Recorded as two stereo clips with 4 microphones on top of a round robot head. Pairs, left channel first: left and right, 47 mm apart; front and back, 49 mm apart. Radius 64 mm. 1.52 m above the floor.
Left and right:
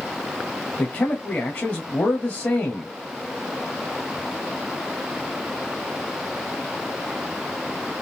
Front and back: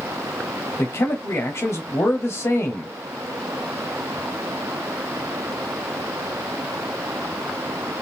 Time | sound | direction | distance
0.8 | a man speaking | 30° left | 0.8 m